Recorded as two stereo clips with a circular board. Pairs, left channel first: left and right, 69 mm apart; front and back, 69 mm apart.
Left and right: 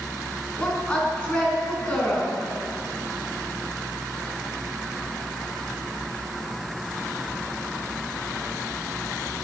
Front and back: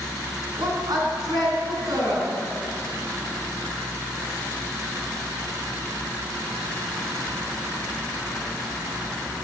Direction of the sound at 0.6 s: 165° left.